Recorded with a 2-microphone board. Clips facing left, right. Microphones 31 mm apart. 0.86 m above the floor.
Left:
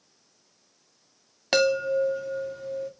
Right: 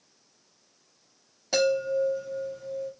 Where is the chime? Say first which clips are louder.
Left 2 dB; 65° left (ahead or behind), 2.0 m.